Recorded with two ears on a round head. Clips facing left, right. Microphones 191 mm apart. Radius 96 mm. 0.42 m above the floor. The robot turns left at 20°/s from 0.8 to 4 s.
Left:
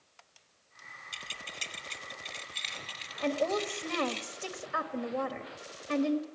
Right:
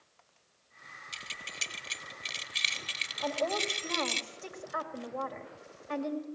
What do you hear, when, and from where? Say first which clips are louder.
1.1 s keys jangling: left 3 dB; 20° right (ahead or behind), 1.3 m; by 4.2 s 55° right (ahead or behind), 1.3 m
3.2 s a woman speaking: left 3 dB; 35° left (ahead or behind), 2.5 m; by 6.2 s 50° left (ahead or behind), 2.5 m